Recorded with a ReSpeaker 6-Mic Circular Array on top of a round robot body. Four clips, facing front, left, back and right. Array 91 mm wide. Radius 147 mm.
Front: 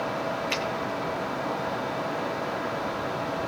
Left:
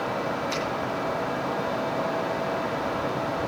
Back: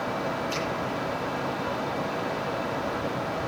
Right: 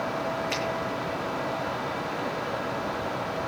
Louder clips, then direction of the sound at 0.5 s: Left 1 dB, even; 25° right.